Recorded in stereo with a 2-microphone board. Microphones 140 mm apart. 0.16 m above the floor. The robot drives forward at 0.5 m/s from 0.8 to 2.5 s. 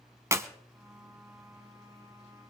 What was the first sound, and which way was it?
A clap, 20° right (ahead or behind).